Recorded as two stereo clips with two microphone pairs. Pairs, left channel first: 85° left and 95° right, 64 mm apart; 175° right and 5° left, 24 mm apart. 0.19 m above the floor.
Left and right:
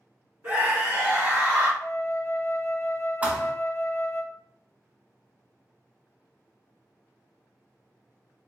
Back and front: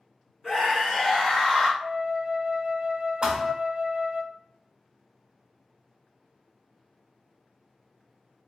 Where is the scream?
120° right, 1.9 m; by 1.7 s 125° right, 2.5 m.